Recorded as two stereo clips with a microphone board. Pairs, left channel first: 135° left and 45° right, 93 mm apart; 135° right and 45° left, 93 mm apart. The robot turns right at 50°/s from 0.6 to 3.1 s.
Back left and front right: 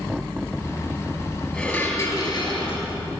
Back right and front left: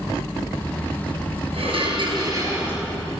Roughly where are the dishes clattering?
Ahead left.